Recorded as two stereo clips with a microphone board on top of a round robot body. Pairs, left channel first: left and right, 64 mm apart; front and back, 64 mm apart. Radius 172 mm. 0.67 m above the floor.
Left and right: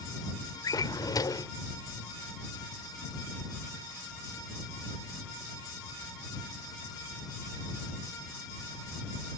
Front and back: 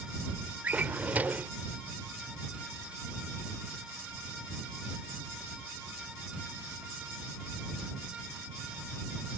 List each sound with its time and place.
0.6 s a drawer: 115° left